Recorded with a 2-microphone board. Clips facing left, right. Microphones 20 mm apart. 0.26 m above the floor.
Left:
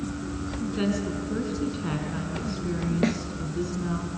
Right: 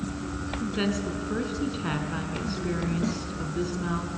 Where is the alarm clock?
No alarm clock in this recording.